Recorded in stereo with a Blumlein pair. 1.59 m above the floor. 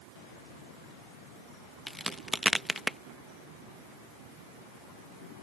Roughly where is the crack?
Ahead.